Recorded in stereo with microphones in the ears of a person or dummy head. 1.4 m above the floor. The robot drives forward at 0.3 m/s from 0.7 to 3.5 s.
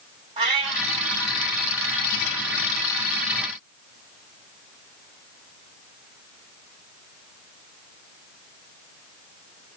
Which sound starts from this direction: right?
A cat meowing, at 0.4 s.